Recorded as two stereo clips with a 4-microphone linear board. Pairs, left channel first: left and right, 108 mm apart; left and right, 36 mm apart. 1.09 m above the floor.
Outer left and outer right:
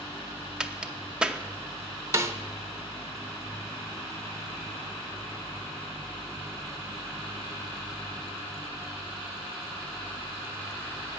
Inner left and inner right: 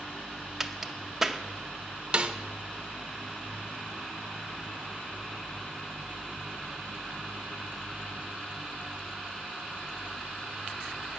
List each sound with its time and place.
0.6 s a crack: 10° right (ahead or behind), 0.7 m
2.1 s a snare drum: 25° right (ahead or behind), 0.8 m